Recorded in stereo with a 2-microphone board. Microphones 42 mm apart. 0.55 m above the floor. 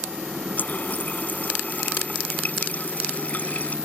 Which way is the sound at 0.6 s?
35° left (ahead or behind).